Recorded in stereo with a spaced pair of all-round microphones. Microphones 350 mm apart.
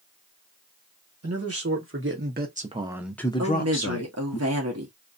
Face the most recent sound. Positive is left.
turn(degrees=-45)  # may be behind; listen again after turning